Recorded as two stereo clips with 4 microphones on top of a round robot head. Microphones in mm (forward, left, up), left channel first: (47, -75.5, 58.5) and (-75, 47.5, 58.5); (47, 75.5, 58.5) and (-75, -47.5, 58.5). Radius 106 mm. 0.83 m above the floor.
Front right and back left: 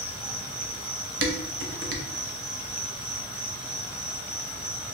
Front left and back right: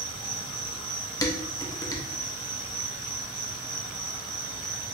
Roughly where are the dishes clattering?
Behind left.